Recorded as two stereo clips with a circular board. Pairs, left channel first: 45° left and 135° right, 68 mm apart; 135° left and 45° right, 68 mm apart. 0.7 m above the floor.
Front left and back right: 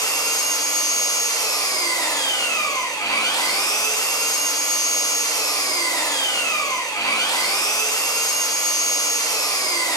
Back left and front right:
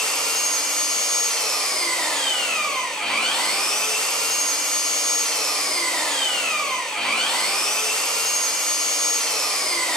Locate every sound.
0.0 s an engine running: 55° left, 2.5 m